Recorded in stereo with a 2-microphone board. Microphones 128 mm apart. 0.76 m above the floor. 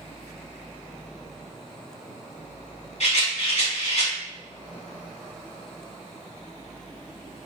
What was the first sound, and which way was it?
A rattle, 55° left (ahead or behind).